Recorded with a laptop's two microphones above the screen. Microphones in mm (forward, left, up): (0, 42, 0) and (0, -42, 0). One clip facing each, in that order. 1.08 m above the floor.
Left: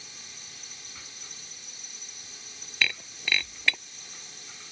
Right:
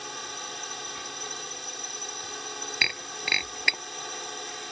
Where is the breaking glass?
15° right (ahead or behind).